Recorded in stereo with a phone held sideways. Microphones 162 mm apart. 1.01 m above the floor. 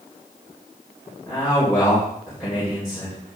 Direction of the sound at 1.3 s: 5° right (ahead or behind).